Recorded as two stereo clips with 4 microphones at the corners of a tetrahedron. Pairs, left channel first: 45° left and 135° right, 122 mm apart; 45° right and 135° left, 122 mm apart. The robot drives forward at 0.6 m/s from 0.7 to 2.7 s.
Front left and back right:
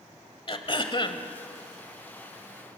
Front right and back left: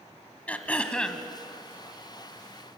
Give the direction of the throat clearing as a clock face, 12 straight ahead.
11 o'clock.